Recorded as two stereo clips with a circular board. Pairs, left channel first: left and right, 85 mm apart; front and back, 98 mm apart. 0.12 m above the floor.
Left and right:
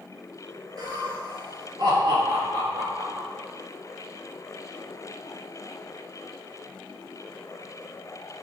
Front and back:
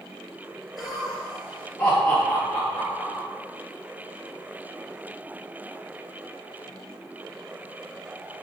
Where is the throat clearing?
No throat clearing in this recording.